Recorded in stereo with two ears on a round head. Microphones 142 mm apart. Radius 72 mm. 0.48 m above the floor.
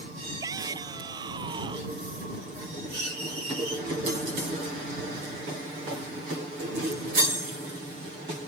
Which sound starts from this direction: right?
A shout, at 0.4 s.